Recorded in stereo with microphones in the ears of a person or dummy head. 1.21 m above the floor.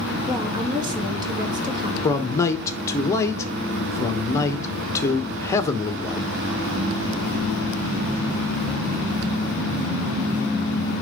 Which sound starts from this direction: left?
A man speaking, at 2.0 s.